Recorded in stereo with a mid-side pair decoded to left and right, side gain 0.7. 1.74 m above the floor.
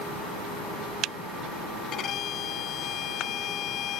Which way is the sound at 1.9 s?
45° left.